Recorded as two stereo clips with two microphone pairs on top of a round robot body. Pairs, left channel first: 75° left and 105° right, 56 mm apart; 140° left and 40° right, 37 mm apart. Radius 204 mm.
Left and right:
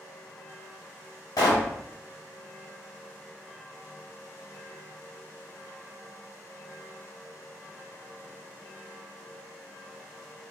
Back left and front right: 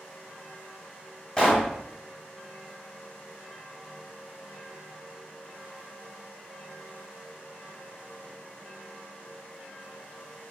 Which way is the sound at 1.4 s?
65° left.